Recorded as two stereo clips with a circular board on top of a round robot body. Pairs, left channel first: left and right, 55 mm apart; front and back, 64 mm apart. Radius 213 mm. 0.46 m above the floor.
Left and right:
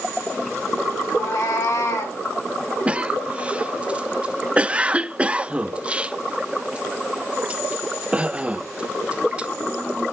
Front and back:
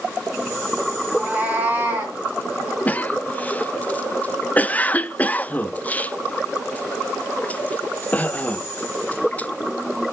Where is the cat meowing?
115° left, 1.5 m; by 2.2 s 120° left, 2 m.